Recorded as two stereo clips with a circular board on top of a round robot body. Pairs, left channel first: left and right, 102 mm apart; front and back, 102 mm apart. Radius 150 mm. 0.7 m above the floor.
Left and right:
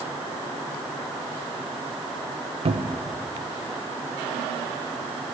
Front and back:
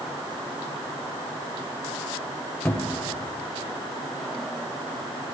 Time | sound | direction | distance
2.6 | a cupboard door | 70° right | 0.8 m